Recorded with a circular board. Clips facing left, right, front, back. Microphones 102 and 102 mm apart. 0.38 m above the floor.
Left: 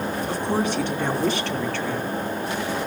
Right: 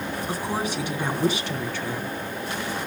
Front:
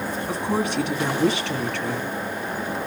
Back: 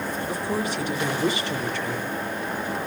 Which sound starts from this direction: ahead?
A woman speaking, at 0.3 s.